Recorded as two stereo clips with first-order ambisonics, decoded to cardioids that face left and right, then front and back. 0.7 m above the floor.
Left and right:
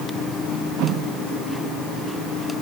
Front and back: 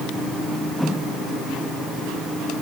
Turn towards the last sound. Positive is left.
No sound to turn to.